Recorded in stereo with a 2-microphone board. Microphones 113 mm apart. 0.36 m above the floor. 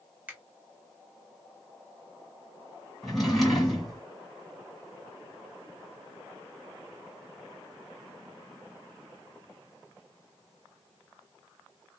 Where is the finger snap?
15° right (ahead or behind), 1.1 m.